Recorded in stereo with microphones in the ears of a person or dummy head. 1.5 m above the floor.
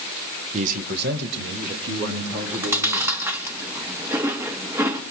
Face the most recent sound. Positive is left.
turn(degrees=-10)  # may be behind; listen again after turning